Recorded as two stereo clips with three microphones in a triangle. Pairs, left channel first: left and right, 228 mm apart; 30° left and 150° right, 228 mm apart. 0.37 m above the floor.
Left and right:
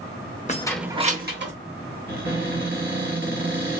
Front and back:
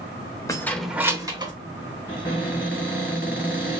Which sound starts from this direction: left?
Keys jangling, at 0.5 s.